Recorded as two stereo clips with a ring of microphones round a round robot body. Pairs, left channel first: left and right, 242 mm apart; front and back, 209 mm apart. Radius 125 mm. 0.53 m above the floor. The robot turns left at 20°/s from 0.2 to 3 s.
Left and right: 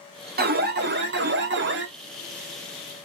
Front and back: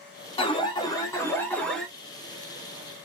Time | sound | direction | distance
0.4 | an alarm | 55° right | 1.2 m